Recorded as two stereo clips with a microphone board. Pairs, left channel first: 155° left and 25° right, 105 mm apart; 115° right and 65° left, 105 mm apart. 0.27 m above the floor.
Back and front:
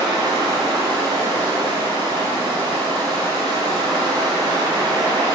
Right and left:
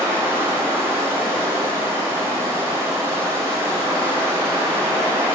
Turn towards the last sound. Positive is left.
turn(degrees=10)